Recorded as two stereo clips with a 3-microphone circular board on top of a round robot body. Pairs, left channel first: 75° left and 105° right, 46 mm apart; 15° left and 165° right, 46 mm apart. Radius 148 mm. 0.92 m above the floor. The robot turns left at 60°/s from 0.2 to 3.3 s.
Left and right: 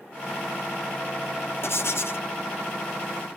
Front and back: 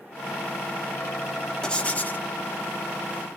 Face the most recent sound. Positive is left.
turn(degrees=-15)